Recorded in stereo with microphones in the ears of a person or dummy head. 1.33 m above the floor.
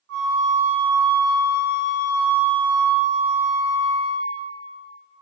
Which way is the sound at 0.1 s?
60° right (ahead or behind).